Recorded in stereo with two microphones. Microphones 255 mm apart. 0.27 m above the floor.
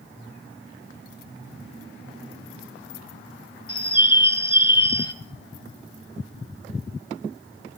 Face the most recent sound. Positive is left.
turn(degrees=20)  # may be behind; listen again after turning